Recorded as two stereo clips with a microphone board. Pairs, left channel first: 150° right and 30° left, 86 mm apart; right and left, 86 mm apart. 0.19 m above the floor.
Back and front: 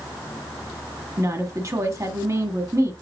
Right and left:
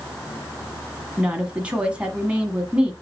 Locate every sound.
1.2 s a woman speaking: 20° left, 1.4 m